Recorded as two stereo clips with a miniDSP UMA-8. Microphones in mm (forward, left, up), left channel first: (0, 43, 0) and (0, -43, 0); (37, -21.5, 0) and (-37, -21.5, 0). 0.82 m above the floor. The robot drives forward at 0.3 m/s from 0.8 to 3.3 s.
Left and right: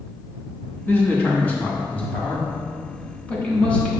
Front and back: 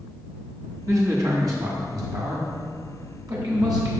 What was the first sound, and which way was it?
A man speaking, 150° left.